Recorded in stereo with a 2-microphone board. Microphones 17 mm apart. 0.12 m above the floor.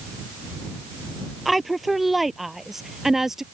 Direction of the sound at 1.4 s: 5° right (ahead or behind).